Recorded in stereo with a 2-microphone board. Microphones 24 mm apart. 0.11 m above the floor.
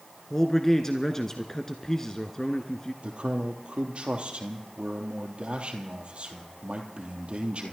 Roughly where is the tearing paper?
I don't hear tearing paper.